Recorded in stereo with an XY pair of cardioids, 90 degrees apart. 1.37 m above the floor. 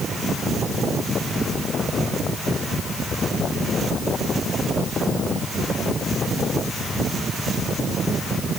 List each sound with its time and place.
Only background noise.